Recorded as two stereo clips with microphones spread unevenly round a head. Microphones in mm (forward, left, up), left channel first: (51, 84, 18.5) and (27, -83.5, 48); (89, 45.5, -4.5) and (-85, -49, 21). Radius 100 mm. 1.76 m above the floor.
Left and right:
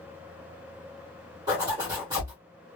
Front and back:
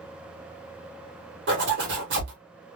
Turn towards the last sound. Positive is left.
turn(degrees=-160)